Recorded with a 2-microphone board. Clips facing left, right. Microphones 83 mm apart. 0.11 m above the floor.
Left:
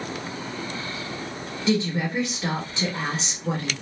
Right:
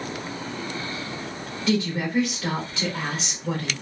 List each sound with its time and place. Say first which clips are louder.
1.7 s a woman speaking: even; 20° left (ahead or behind), 1.5 m